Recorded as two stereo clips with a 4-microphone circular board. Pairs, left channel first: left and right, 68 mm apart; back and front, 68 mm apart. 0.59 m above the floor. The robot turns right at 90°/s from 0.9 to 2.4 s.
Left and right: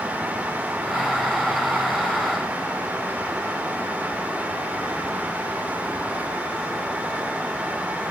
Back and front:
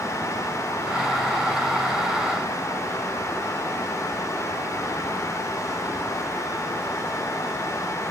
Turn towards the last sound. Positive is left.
No sound to turn to.